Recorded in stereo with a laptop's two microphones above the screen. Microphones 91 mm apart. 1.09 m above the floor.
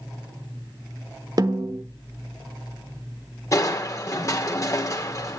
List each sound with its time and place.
1.4 s a snare drum: 45° right (ahead or behind), 1.0 m
3.5 s crushing: 35° left (ahead or behind), 2 m